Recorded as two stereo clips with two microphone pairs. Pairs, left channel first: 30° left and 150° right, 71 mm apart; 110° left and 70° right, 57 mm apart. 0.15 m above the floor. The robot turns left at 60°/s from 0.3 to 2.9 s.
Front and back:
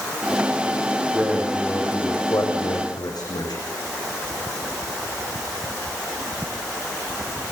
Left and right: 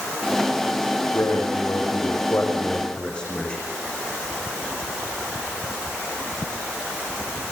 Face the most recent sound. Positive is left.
turn(degrees=35)